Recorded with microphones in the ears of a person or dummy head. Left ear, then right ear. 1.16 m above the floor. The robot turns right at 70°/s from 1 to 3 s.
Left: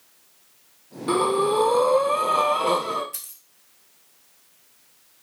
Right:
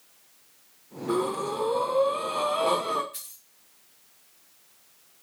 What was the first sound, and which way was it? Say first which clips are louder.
Breathing: left 7 dB; 65° left.